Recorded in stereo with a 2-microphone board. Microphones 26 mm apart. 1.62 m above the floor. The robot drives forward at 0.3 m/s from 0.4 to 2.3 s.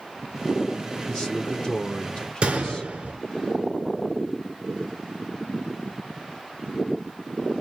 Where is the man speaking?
30° left (ahead or behind), 0.7 m; by 2.9 s 35° left (ahead or behind), 0.6 m.